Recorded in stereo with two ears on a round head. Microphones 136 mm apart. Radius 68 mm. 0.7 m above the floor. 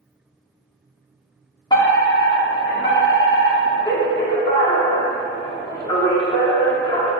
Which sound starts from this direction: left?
A fire alarm, at 1.7 s.